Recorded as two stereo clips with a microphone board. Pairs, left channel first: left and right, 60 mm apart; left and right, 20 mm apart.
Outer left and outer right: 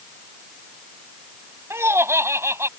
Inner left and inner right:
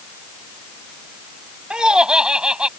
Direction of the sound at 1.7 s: 50° right (ahead or behind).